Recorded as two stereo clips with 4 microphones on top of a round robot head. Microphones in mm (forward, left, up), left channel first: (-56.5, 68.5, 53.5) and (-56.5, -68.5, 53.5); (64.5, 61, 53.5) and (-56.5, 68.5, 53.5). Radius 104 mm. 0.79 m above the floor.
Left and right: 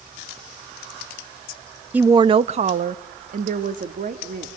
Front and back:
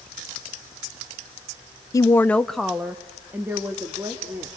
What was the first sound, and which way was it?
A woman speaking, 20° right.